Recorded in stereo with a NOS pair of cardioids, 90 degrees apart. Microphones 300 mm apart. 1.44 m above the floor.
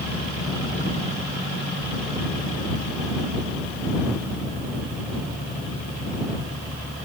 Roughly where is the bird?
No bird in this recording.